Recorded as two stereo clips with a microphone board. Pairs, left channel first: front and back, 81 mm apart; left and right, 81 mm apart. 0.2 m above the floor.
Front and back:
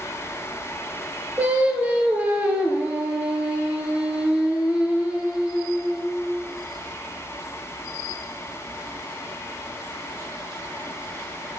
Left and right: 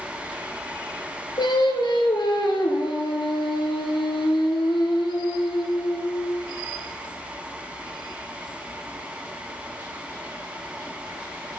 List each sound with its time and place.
1.4 s singing: 110° left, 2.5 m